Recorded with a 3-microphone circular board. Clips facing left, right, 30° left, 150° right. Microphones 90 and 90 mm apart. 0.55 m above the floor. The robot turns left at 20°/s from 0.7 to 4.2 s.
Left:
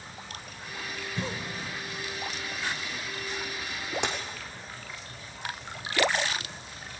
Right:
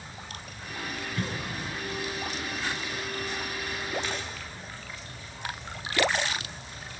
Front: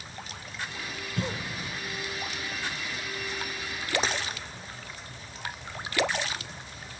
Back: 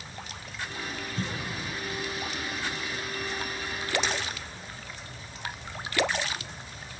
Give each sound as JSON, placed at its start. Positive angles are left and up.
{"t": 1.2, "sound": "a cough", "azimuth_deg": 25, "distance_m": 2.0}
{"t": 4.0, "sound": "a dropped coin", "azimuth_deg": 80, "distance_m": 3.0}